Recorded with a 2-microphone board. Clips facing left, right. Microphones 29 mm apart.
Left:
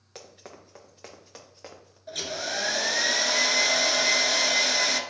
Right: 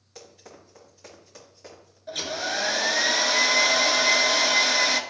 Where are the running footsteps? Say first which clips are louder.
Left 1 dB; 60° left (ahead or behind), 3 m; by 2.0 s 35° left (ahead or behind), 3 m.